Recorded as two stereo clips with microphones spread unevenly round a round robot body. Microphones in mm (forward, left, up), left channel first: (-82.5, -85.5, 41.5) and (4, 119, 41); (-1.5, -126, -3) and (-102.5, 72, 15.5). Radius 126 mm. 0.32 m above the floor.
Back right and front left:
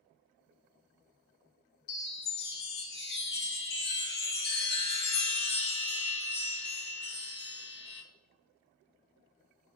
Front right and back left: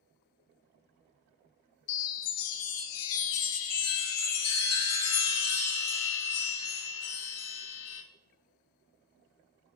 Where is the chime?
65° right, 0.6 m.